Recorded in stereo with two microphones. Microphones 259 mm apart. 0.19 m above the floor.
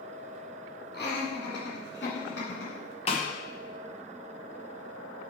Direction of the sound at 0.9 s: 40° left (ahead or behind).